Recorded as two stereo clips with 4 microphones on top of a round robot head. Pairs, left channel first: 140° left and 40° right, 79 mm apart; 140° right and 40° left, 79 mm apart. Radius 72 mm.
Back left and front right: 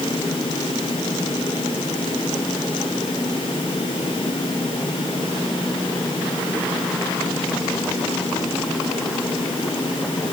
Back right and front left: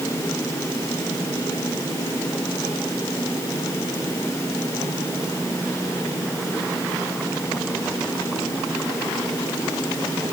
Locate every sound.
Only background noise.